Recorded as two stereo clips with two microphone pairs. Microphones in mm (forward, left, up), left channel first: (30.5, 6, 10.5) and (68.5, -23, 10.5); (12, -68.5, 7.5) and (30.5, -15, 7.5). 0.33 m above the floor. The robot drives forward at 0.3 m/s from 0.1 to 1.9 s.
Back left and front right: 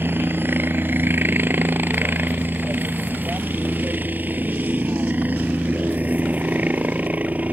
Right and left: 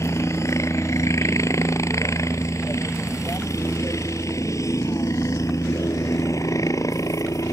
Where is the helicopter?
80° right; by 7.5 s 95° right.